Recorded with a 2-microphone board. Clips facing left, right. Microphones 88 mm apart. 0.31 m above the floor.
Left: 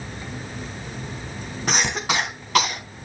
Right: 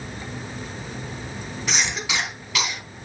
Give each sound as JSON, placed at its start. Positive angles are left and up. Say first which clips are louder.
{"t": 1.7, "sound": "a cough", "louder": "left 4 dB", "side_deg": 50, "distance_m": 3.0}